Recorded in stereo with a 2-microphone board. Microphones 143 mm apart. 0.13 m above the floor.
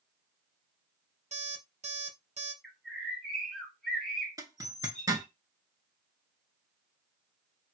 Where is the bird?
Centre (ahead or behind), 1.8 m.